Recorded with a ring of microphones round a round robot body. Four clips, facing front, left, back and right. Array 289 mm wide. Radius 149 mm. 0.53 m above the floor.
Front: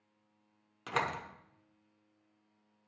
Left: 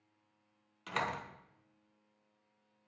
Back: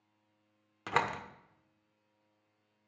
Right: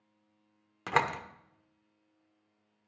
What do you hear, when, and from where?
0.9 s a door slam: 115° right, 1.0 m